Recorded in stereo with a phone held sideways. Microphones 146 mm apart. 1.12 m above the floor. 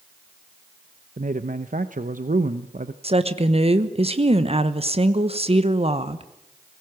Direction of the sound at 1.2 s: 65° right (ahead or behind).